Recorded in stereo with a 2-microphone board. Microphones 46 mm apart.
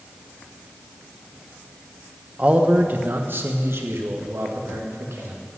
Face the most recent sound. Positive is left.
turn(degrees=-75)  # may be behind; listen again after turning